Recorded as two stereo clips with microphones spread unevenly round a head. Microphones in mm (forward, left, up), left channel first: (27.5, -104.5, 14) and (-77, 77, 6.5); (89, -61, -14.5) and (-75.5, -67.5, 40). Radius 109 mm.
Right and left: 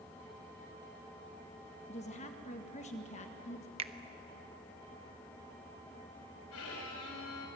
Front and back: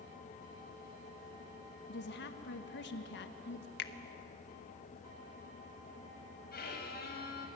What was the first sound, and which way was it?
A woman speaking, straight ahead.